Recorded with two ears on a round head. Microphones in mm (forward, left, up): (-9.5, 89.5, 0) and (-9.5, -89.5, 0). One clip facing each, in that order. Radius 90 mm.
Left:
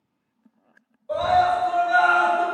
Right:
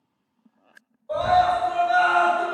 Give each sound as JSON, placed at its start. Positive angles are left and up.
{"t": 1.1, "sound": "a scream", "side_deg": 40, "distance_m": 1.7}